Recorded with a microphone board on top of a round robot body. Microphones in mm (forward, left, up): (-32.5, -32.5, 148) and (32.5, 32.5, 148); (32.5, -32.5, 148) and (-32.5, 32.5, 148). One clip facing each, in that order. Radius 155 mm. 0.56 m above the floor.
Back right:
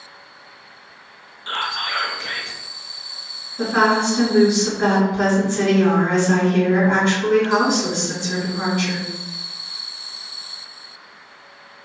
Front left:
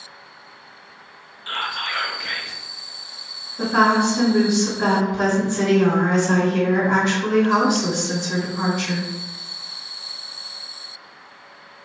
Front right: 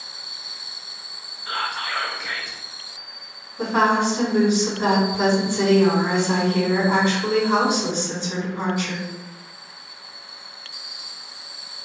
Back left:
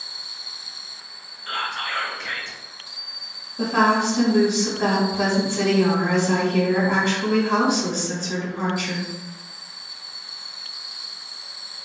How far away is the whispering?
About 0.7 m.